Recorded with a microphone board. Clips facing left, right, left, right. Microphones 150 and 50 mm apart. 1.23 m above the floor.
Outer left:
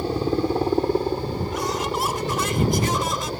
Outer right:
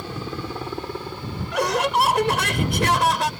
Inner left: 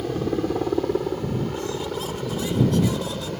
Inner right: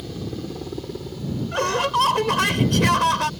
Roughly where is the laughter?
Right.